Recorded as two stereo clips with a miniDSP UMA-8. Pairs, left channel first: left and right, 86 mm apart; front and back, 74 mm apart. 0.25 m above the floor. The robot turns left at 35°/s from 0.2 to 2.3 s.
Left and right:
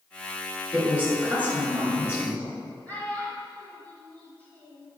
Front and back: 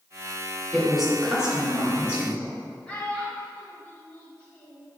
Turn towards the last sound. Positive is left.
turn(degrees=50)